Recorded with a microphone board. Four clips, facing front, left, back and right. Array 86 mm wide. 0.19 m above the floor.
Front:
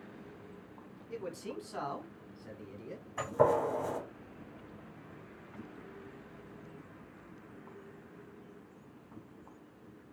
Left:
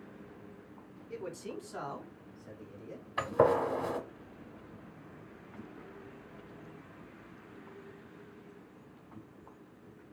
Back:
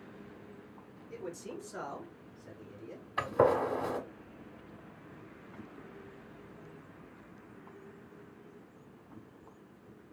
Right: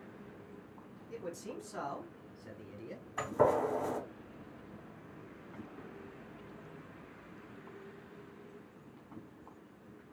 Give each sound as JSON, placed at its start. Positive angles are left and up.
{"t": 1.1, "sound": "a man speaking", "azimuth_deg": 50, "distance_m": 1.4}
{"t": 3.2, "sound": "a gunshot", "azimuth_deg": 130, "distance_m": 0.8}